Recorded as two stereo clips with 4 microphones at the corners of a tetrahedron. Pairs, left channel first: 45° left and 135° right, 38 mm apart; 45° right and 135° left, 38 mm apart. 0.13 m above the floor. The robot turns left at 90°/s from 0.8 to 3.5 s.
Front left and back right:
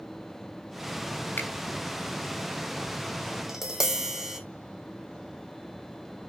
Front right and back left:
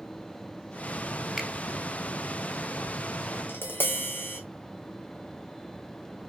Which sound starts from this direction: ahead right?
Tapping, at 3.5 s.